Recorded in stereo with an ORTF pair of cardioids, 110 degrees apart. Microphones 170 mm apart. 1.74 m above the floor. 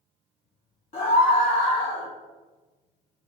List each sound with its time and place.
0.9 s a scream: 40° left, 1.8 m